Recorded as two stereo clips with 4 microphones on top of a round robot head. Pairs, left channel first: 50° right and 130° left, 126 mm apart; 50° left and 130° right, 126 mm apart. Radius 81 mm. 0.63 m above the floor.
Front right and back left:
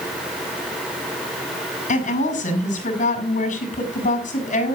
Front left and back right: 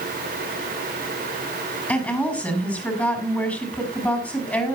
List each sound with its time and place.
1.9 s a woman speaking: 25° right, 5 m